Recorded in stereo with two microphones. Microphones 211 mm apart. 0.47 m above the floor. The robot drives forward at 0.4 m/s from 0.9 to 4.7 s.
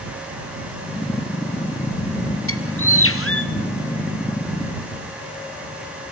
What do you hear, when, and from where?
2.5 s a bird: 85° left, 1.4 m; by 3.5 s 80° left, 1.4 m